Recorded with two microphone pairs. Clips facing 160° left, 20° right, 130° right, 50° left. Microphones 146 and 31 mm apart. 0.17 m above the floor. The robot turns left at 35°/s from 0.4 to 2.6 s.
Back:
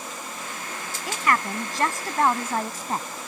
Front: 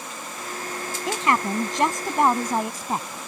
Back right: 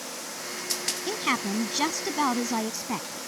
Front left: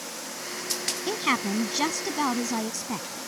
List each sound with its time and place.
1.1 s a woman speaking: 25° right; by 3.2 s 80° right